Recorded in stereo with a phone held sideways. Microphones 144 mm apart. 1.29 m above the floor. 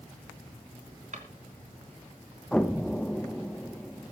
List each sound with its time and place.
1.1 s a drawer: 65° right (ahead or behind), 3 m
2.5 s an explosion: 5° left (ahead or behind), 1.0 m